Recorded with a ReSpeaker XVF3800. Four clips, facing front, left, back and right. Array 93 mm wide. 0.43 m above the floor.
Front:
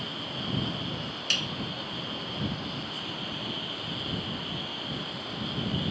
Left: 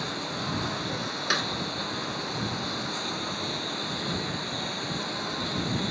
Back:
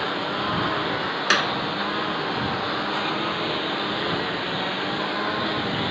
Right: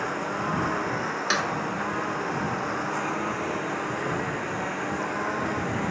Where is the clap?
175° right.